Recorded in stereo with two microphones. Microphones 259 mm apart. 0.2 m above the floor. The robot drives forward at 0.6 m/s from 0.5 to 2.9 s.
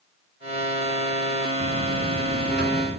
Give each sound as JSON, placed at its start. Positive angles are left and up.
{"t": 1.6, "sound": "a buzzer", "side_deg": -50, "distance_m": 1.6}